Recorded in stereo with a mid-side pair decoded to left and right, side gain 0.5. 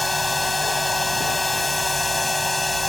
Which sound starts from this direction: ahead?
A machine running, at 0.0 s.